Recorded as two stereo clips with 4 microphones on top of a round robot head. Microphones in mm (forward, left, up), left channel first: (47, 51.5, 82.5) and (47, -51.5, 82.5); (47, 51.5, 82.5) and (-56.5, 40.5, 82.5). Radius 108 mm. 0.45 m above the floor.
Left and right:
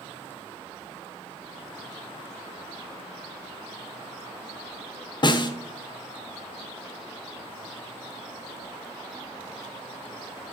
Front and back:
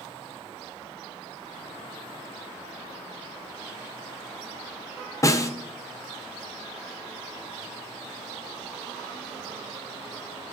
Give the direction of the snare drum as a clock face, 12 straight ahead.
10 o'clock.